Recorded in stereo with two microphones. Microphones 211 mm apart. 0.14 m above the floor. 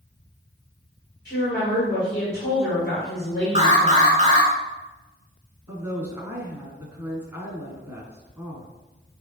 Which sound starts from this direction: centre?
A woman speaking, at 5.7 s.